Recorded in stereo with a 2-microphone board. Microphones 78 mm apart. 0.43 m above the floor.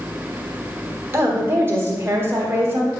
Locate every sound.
1.1 s a woman speaking: 30° right (ahead or behind), 1.4 m